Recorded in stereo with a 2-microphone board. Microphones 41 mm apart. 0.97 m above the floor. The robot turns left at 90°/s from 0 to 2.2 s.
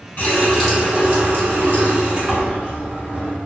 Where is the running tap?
40° left, 1.1 m; by 3.4 s 145° right, 1.1 m.